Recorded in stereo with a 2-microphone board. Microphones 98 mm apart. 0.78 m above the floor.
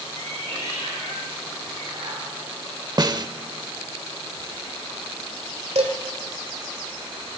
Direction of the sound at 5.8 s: 80° right.